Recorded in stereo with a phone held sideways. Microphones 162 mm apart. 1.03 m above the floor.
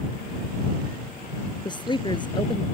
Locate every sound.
1.6 s a woman speaking: 30° left (ahead or behind)